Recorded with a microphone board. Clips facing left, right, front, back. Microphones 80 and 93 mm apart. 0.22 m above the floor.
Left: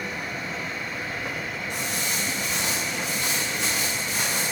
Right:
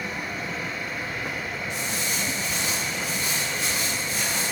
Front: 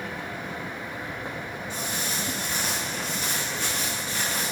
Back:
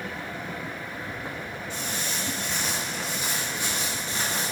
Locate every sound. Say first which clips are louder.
1.7 s footsteps: even, front 1 dB; 70° left, 3 m; by 4.5 s 120° left, 3.5 m